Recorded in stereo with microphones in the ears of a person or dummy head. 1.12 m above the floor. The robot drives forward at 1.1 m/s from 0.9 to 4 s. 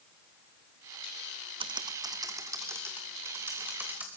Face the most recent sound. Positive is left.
turn(degrees=-5)  # may be behind; listen again after turning